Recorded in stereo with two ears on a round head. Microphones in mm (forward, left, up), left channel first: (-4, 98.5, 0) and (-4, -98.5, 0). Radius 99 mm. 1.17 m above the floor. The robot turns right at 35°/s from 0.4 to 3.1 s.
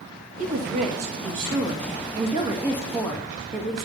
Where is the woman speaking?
90° right, 1.9 m; by 3.9 s 5° left, 1.9 m.